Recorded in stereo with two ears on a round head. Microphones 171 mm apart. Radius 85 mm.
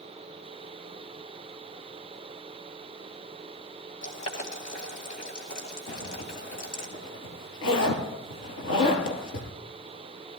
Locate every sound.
4.0 s boiling: 45° left (ahead or behind), 2.5 m
5.9 s a zipper: 75° left (ahead or behind), 3 m